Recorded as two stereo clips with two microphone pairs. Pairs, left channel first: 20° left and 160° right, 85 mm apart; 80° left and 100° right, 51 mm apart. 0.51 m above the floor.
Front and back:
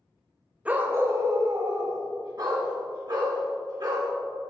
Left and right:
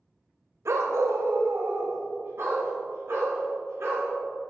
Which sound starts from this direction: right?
A dog barking, at 0.7 s.